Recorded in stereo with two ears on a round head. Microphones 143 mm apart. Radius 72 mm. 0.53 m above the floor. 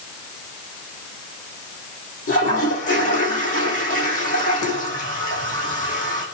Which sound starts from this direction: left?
A toilet flushing, at 2.3 s.